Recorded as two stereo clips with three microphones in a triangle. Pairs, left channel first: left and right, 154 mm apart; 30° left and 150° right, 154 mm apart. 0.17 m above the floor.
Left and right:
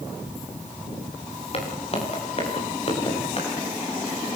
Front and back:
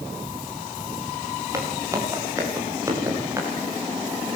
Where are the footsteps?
140° left, 9.5 m.